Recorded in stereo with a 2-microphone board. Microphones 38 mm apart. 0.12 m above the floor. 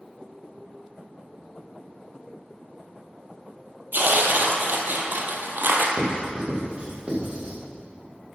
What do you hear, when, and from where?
3.9 s tearing paper: 60° right (ahead or behind), 1.1 m
6.0 s writing: 30° right (ahead or behind), 4 m